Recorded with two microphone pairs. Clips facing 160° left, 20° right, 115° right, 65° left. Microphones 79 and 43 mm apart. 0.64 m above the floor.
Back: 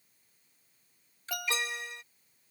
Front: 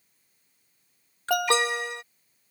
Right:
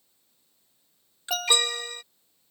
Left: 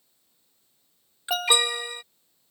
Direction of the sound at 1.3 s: 15° right.